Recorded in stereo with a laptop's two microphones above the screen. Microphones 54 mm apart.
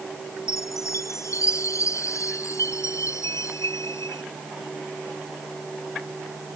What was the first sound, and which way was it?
A chime, 70° left (ahead or behind).